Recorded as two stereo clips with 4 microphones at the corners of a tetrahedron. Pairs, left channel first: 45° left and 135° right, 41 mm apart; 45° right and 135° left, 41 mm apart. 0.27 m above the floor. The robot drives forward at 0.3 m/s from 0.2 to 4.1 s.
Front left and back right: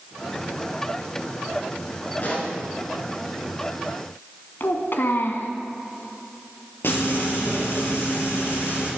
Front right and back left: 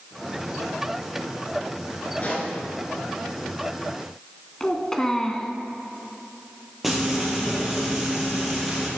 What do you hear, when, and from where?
2.2 s a pop: 5° left, 3.5 m
4.6 s a child speaking: 30° left, 1.5 m
6.8 s frying: 50° left, 5.5 m